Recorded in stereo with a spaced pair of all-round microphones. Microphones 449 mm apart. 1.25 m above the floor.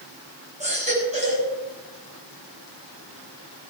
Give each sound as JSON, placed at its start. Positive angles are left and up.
{"t": 0.6, "sound": "a baby crying", "side_deg": -15, "distance_m": 5.5}